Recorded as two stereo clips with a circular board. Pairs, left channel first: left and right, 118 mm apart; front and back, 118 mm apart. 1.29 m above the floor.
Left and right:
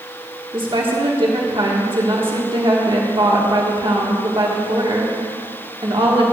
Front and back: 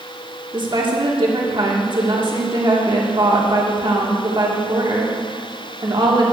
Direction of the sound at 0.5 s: 130° right.